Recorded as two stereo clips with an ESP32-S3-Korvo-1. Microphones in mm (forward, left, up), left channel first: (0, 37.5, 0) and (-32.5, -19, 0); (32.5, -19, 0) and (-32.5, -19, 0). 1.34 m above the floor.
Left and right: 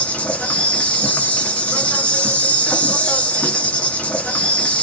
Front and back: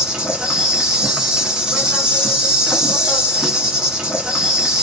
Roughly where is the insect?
Left.